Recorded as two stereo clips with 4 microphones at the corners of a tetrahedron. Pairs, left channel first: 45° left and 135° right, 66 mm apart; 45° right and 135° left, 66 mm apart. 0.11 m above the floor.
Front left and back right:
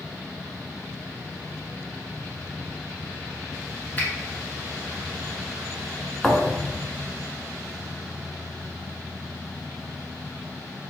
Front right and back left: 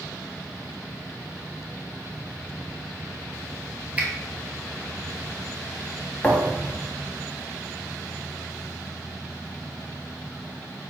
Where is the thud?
30° right, 0.6 m.